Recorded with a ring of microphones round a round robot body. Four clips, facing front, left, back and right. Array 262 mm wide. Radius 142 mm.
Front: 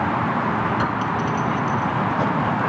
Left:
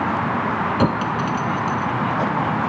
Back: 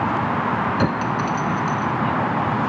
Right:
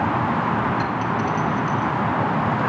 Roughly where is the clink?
Behind left.